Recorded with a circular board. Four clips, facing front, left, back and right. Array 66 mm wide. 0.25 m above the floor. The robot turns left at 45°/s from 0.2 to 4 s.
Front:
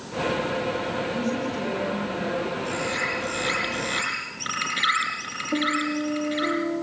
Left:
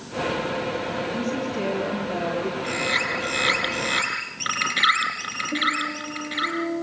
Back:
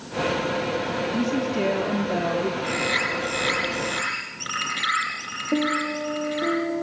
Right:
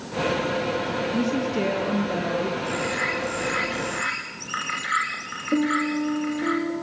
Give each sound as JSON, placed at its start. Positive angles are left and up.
{"t": 1.1, "sound": "a woman speaking", "azimuth_deg": -105, "distance_m": 6.0}
{"t": 2.6, "sound": "a bird", "azimuth_deg": 145, "distance_m": 6.5}
{"t": 5.5, "sound": "a piano", "azimuth_deg": -160, "distance_m": 6.0}